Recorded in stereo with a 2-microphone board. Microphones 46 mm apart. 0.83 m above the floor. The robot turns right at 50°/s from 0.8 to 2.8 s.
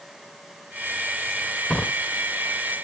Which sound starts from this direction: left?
A drawer, at 1.7 s.